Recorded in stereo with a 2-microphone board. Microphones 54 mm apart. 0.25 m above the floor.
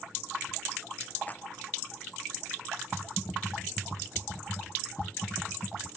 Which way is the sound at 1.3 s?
30° left (ahead or behind).